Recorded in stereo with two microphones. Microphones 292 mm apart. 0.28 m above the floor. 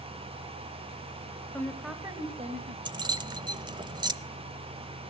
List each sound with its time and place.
1.5 s a woman speaking: 10° left (ahead or behind), 1.3 m; by 2.8 s 30° right (ahead or behind), 1.4 m
2.9 s keys jangling: 15° right (ahead or behind), 0.8 m